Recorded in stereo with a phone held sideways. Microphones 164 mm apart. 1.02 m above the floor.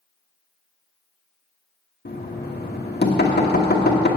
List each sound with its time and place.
2.0 s knocking: 80° left, 1.3 m